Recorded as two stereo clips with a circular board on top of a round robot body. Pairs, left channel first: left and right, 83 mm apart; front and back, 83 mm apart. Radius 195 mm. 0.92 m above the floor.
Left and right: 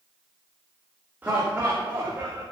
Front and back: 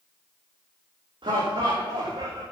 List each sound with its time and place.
1.2 s laughter: 160° right, 3.5 m; by 2.4 s 150° right, 2.5 m